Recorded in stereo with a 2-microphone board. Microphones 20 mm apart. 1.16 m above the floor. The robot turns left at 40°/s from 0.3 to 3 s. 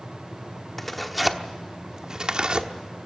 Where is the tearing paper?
10° left (ahead or behind), 1.1 m; by 2.7 s 55° right (ahead or behind), 1.1 m.